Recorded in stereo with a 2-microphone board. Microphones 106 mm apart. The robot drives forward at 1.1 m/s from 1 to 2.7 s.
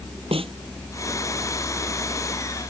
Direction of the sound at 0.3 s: 60° right (ahead or behind).